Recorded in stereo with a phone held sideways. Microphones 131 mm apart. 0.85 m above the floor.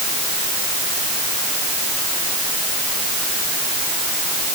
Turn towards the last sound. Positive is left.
No sound to turn to.